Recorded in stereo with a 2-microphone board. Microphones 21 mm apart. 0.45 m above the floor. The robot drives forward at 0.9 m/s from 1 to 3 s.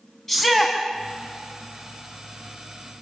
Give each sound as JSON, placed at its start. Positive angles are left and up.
{"t": 0.3, "sound": "a shout", "side_deg": 20, "distance_m": 4.5}